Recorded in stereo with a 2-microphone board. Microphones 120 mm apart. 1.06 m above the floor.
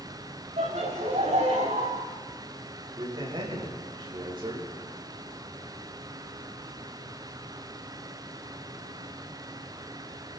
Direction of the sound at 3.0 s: 45° right (ahead or behind).